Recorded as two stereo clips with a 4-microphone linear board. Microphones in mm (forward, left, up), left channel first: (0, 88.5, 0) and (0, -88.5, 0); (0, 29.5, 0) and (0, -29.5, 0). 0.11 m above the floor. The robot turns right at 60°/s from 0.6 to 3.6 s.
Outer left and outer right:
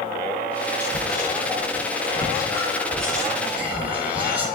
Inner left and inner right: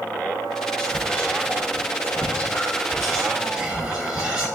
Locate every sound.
0.8 s whispering: 15° left (ahead or behind), 1.1 m; by 4.5 s 10° right (ahead or behind), 1.1 m